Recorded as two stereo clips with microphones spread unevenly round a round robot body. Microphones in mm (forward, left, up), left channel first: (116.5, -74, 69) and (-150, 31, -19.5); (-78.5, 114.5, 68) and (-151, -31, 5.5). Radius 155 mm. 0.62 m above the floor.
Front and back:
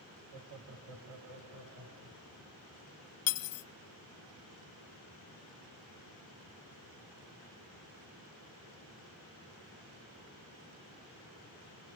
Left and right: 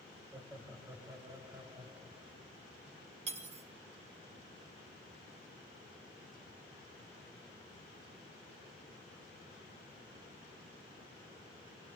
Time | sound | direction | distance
0.3 | laughter | 170° left | 3 m
3.3 | cutlery clinking | 65° right | 0.8 m